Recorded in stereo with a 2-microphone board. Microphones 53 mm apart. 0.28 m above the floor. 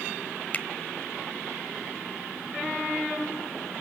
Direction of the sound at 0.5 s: 30° left (ahead or behind).